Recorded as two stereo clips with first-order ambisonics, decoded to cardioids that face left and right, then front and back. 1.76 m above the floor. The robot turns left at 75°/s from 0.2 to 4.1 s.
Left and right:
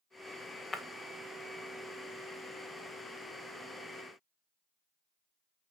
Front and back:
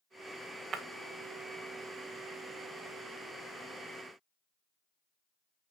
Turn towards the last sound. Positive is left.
turn(degrees=-95)